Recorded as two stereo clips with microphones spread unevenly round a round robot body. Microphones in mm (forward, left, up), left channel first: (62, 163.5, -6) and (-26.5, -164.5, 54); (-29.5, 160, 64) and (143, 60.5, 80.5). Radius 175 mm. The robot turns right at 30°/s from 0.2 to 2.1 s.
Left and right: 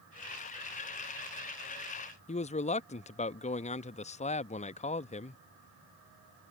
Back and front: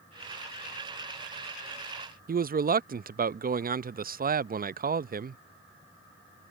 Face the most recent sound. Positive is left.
turn(degrees=15)